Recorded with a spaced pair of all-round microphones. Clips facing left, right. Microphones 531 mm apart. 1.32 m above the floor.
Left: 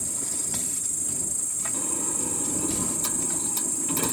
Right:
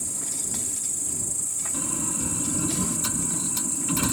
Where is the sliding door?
35° right (ahead or behind).